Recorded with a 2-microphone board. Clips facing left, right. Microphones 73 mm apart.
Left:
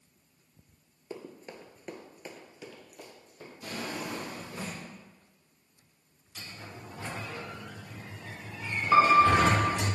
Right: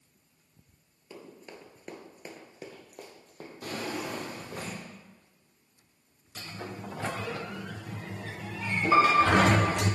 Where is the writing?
No writing in this recording.